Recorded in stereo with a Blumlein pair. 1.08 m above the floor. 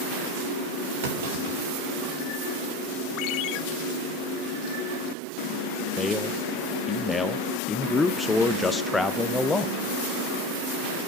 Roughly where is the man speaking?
Ahead.